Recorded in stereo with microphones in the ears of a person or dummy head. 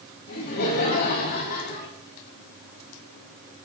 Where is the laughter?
50° left (ahead or behind), 8 m.